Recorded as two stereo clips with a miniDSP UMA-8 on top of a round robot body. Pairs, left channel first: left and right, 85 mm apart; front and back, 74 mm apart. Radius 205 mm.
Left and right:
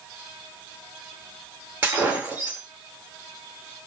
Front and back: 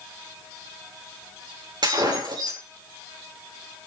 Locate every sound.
1.8 s breaking glass: 160° right, 6 m